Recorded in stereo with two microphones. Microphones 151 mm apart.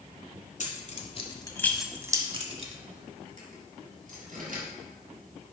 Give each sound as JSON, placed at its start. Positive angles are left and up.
{"t": 0.6, "sound": "keys jangling", "side_deg": 55, "distance_m": 1.5}